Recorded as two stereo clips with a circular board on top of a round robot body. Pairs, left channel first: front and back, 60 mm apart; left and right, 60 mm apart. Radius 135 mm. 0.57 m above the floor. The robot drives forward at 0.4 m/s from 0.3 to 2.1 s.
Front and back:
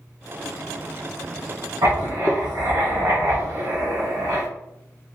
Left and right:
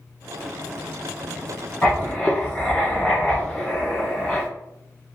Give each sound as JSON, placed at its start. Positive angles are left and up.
{"t": 1.8, "sound": "writing", "azimuth_deg": 175, "distance_m": 1.8}